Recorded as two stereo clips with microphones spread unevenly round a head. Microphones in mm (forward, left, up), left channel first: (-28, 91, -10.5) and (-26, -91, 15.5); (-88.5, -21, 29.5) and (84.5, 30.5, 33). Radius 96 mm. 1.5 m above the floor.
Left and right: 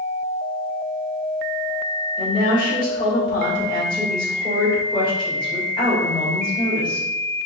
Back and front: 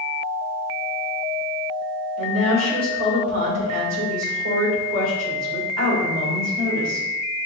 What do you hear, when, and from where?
2.2 s a woman speaking: 25° left, 2 m